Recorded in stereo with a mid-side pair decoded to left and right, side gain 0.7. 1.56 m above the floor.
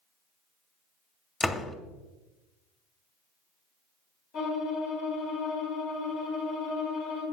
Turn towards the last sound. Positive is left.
turn(degrees=70)